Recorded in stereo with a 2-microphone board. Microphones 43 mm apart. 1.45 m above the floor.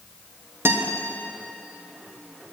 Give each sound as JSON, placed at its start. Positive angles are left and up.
{"t": 0.7, "sound": "a guitar", "side_deg": -70, "distance_m": 1.1}